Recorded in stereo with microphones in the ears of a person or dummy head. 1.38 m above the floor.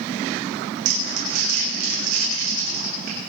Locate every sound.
0.8 s crumpling: 80° right, 6 m